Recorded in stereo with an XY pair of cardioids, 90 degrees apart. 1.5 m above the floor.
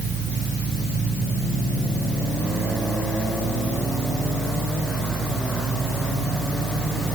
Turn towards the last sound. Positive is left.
turn(degrees=-65)